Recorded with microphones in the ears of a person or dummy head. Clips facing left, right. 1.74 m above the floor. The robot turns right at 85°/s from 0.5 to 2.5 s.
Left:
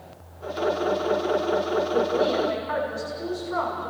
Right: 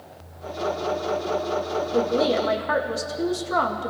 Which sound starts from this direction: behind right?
A woman speaking, at 1.9 s.